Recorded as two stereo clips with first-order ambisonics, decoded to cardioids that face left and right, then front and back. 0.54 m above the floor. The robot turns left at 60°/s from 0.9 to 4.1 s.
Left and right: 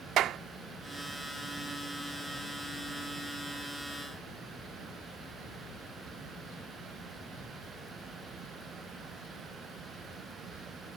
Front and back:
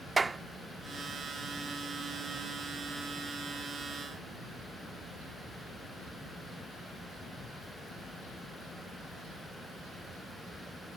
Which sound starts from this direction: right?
A clap, at 0.2 s.